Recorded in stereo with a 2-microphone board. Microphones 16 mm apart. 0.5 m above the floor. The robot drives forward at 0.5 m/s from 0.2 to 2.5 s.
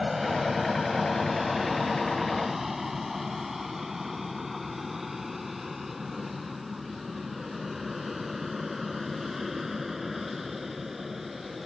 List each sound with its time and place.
0.0 s an aircraft: 20° right (ahead or behind); by 11.7 s 15° right (ahead or behind)